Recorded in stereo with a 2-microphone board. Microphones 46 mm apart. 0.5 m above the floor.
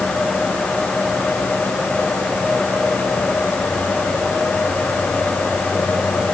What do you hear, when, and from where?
Only background noise.